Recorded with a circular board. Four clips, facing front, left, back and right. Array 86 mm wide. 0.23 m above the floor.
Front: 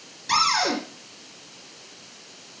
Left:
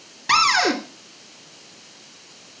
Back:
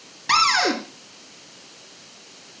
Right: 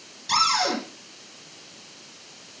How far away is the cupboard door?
About 2.5 m.